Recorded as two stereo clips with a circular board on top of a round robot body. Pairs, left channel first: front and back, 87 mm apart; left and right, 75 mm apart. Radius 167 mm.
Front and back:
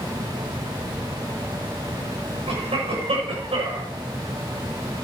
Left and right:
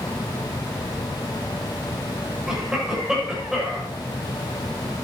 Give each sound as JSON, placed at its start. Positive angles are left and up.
{"t": 2.5, "sound": "a cough", "azimuth_deg": -175, "distance_m": 7.0}